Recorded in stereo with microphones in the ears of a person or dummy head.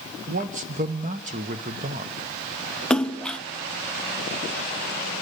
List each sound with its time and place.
0.3 s a man speaking: 35° right (ahead or behind), 1.0 m
2.9 s a splash: centre (ahead or behind), 0.6 m